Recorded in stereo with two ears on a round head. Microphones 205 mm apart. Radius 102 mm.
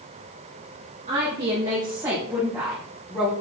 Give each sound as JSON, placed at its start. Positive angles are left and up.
{"t": 1.1, "sound": "a woman speaking", "side_deg": -30, "distance_m": 1.9}